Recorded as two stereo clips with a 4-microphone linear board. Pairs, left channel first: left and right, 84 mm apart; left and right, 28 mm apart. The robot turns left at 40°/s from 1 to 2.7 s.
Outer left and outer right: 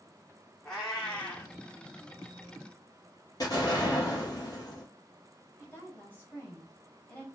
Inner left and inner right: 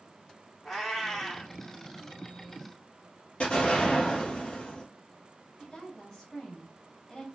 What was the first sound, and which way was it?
A cat meowing, 5° left (ahead or behind).